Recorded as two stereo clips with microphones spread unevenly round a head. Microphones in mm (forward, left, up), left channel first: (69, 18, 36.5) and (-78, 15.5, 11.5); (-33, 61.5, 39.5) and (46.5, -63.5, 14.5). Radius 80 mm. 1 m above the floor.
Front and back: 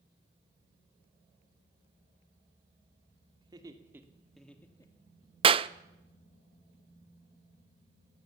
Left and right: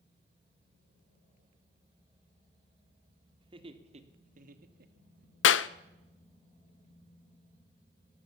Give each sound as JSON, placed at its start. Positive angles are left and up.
{"t": 3.4, "sound": "laughter", "azimuth_deg": -115, "distance_m": 2.5}
{"t": 5.4, "sound": "a clap", "azimuth_deg": 125, "distance_m": 0.6}